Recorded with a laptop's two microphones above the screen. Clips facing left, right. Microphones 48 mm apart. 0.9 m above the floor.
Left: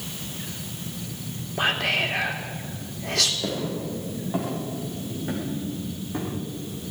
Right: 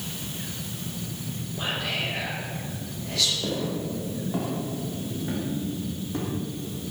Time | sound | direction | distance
1.6 | whispering | 65° left (ahead or behind) | 2.5 m
3.4 | footsteps | 15° left (ahead or behind) | 5 m